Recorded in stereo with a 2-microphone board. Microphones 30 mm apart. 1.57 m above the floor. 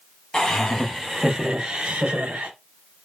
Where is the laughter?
20° left (ahead or behind), 1.2 m; by 2.5 s 60° right (ahead or behind), 1.1 m.